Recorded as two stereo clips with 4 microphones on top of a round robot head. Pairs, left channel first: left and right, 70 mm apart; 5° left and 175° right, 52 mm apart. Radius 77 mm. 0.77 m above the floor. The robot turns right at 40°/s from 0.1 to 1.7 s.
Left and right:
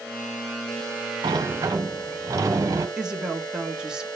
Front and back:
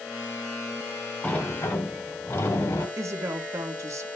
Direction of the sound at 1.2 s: 70° right.